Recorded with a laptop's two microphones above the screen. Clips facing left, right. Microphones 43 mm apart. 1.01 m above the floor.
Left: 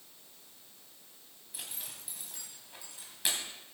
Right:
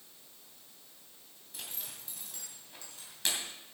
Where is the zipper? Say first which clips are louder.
Even; 10° left (ahead or behind), 2.5 m.